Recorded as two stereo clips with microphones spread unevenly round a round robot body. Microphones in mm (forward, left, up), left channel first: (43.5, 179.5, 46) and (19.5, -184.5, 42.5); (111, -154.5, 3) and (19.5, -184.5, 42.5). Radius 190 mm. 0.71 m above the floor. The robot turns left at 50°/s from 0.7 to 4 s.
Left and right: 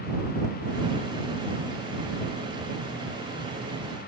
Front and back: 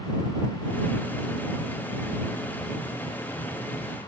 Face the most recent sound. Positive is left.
No sound to turn to.